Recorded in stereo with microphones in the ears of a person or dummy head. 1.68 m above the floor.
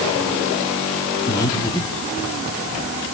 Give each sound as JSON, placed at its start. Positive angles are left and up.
{"t": 1.3, "sound": "breathing", "side_deg": 25, "distance_m": 3.0}